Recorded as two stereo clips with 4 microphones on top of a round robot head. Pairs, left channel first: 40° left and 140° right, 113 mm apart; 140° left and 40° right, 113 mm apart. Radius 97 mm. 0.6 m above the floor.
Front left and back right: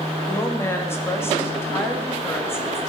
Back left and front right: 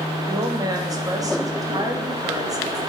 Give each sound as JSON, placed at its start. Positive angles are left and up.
{"t": 0.3, "sound": "a woman speaking", "azimuth_deg": -10, "distance_m": 1.3}